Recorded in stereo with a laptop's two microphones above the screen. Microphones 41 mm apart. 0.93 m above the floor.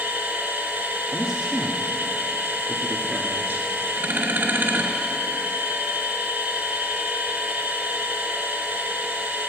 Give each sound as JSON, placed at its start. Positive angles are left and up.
{"t": 0.0, "sound": "a machine running", "side_deg": -65, "distance_m": 4.0}
{"t": 1.1, "sound": "a man speaking", "side_deg": -25, "distance_m": 1.6}